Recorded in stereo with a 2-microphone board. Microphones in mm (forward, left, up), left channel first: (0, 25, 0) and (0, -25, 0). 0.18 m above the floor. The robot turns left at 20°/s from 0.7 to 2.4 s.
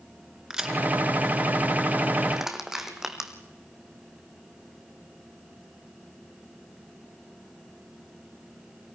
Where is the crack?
15° right (ahead or behind), 2.5 m.